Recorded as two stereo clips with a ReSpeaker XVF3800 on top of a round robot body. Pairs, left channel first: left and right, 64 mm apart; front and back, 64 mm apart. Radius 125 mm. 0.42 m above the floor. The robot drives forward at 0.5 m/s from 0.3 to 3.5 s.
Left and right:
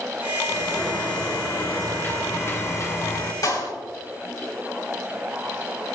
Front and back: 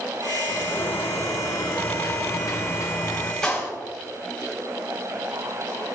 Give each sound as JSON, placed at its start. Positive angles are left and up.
{"t": 0.5, "sound": "a sliding door", "azimuth_deg": 20, "distance_m": 2.5}
{"t": 3.4, "sound": "a clap", "azimuth_deg": 80, "distance_m": 3.5}